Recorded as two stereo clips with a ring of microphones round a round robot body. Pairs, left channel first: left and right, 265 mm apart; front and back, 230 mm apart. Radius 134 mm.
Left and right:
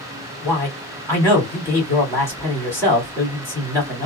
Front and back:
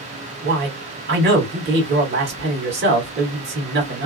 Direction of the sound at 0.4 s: 165° left.